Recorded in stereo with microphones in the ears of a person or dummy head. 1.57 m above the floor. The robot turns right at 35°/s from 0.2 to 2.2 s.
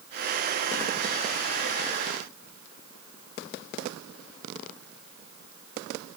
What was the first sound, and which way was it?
Only background noise.